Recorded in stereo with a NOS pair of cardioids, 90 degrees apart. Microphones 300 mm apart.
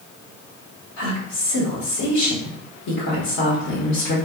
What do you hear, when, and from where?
1.0 s a woman speaking: 65° left, 1.9 m